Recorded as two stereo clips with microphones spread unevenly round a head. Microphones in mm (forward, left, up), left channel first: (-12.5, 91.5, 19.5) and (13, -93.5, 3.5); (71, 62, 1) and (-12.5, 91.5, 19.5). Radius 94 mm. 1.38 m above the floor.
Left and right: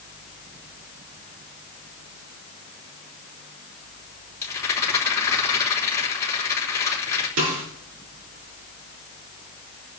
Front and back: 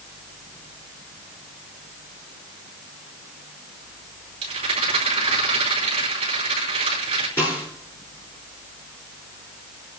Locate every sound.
4.4 s a rattle: 175° left, 4 m
7.4 s a snare drum: 95° right, 4.5 m